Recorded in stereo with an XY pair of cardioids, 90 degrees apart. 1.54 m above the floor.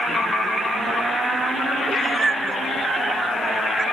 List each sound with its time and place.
1.9 s a cat meowing: 35° right; by 3.8 s 25° right